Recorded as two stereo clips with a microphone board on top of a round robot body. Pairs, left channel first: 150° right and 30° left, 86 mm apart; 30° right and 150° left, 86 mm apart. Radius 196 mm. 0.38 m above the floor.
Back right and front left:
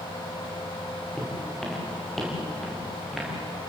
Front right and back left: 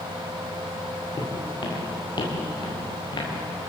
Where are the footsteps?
70° right, 6.5 m; by 3.3 s 60° right, 7.5 m.